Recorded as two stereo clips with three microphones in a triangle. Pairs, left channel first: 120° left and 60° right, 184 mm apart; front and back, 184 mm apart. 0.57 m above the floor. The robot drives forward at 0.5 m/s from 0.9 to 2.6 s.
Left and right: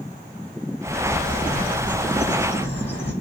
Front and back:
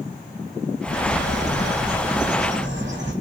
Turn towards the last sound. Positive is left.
turn(degrees=180)